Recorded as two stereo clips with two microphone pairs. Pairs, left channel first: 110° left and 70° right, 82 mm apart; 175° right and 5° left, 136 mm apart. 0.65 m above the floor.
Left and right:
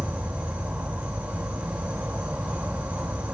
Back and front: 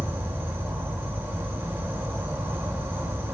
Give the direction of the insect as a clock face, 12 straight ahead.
1 o'clock.